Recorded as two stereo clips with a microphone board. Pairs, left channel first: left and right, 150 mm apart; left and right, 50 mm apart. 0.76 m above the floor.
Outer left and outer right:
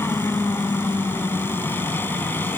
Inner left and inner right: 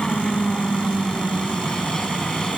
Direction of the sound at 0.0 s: 15° left (ahead or behind).